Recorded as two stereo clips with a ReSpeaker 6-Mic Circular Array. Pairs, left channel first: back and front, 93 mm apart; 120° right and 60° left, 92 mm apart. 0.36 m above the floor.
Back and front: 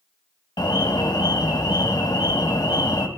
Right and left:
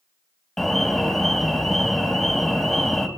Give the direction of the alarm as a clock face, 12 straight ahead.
7 o'clock.